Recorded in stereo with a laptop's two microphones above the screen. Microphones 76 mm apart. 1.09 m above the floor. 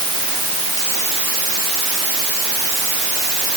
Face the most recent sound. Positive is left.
No sound to turn to.